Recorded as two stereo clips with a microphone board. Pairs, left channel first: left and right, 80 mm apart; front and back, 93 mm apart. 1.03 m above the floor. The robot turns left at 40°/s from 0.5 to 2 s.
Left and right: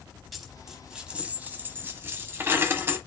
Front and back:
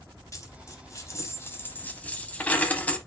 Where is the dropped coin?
5° right, 1.0 m; by 3.0 s 65° right, 1.0 m.